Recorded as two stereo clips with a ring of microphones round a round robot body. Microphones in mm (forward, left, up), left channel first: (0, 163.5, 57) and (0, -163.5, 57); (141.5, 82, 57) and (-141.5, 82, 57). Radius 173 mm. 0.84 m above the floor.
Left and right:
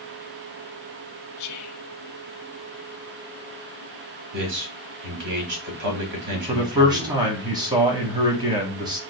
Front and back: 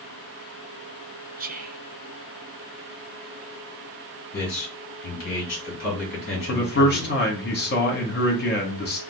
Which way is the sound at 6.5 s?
20° right.